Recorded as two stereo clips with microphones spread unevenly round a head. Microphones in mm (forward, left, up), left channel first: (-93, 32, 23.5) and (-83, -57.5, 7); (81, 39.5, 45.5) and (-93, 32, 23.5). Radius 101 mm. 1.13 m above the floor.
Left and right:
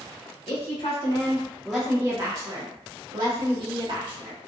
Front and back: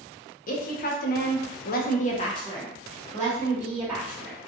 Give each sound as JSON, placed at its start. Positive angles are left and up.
{"t": 0.5, "sound": "a woman speaking", "azimuth_deg": 45, "distance_m": 0.9}